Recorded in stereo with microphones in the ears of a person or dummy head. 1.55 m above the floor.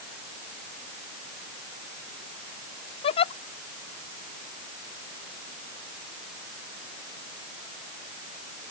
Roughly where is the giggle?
Left.